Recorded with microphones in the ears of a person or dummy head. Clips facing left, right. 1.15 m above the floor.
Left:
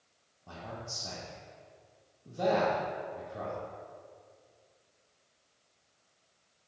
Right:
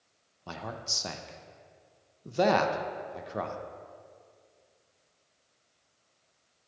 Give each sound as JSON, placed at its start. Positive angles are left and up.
{"t": 0.5, "sound": "a man speaking", "side_deg": -80, "distance_m": 0.6}